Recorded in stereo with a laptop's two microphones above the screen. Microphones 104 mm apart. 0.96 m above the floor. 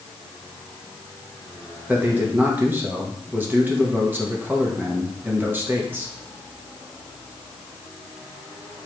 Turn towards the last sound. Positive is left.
turn(degrees=-20)  # may be behind; listen again after turning